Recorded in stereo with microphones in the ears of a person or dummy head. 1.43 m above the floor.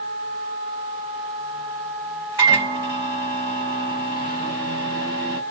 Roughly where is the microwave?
Right.